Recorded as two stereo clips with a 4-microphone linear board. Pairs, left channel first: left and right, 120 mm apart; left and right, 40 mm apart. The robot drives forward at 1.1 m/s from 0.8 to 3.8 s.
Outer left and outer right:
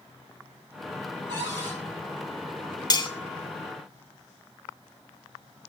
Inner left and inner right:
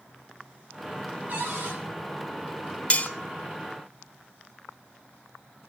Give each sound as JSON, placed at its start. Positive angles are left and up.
{"t": 1.3, "sound": "a cupboard door", "side_deg": -40, "distance_m": 6.5}
{"t": 2.9, "sound": "cutlery clinking", "side_deg": 35, "distance_m": 0.9}